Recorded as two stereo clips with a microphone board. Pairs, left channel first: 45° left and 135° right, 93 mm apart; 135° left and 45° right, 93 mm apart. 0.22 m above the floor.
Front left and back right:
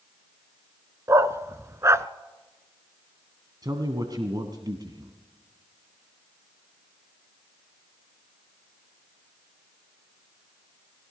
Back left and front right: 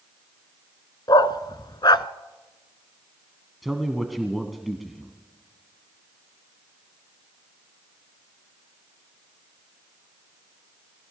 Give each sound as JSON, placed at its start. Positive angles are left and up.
{"t": 1.1, "sound": "a dog barking", "azimuth_deg": 170, "distance_m": 0.7}
{"t": 3.6, "sound": "a man speaking", "azimuth_deg": -135, "distance_m": 1.7}